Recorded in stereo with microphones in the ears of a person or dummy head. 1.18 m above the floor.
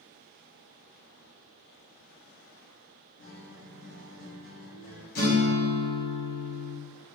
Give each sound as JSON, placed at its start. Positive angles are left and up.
{"t": 3.2, "sound": "a guitar", "side_deg": 45, "distance_m": 0.8}
{"t": 5.2, "sound": "a guitar", "side_deg": 45, "distance_m": 1.1}